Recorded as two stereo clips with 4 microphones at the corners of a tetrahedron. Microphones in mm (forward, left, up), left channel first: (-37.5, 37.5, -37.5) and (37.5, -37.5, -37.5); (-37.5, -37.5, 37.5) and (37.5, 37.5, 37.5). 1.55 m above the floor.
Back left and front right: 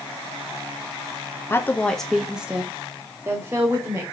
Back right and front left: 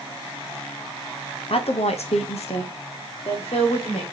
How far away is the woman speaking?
About 0.7 m.